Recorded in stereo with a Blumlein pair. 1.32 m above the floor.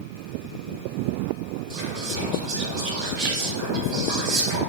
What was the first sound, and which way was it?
Whispering, 40° right.